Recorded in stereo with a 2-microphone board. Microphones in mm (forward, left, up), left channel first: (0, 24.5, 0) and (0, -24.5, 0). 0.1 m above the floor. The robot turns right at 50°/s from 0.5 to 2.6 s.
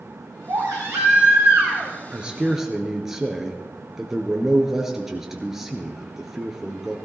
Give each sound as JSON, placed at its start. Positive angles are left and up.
{"t": 0.5, "sound": "a baby crying", "azimuth_deg": -105, "distance_m": 3.5}
{"t": 2.1, "sound": "a man speaking", "side_deg": -20, "distance_m": 1.4}